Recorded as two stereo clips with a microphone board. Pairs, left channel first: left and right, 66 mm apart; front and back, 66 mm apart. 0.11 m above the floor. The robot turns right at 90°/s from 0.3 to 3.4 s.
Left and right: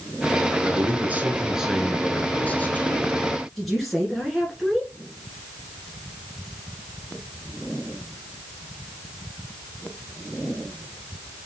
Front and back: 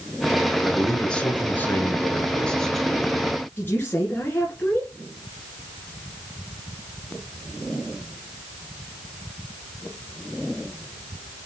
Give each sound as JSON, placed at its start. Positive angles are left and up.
{"t": 0.6, "sound": "a man speaking", "azimuth_deg": -105, "distance_m": 1.2}
{"t": 3.6, "sound": "a woman speaking", "azimuth_deg": 0, "distance_m": 1.3}